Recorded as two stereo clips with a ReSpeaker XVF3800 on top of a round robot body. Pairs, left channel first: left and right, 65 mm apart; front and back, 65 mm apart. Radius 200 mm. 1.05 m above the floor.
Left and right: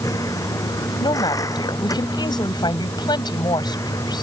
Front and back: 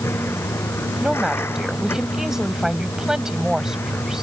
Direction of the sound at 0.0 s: 55° left.